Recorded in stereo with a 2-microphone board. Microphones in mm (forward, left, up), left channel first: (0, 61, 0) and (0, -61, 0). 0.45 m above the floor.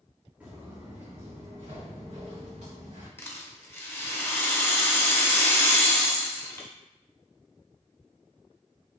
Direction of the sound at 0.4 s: 10° right (ahead or behind).